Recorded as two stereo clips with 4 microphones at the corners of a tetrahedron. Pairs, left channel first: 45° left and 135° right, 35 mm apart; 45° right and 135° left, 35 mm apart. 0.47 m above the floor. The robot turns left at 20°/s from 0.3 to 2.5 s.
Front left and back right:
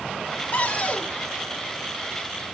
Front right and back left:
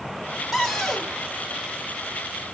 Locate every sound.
0.5 s a cupboard door: 50° left, 1.1 m; by 1.1 s 40° left, 1.1 m